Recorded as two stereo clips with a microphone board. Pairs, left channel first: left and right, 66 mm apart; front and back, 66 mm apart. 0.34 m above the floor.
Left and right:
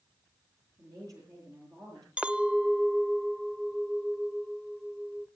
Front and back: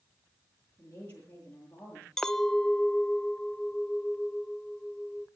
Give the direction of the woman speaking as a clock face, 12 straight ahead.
2 o'clock.